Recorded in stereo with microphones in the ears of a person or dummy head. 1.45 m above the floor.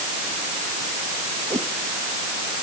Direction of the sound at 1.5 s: 10° right (ahead or behind).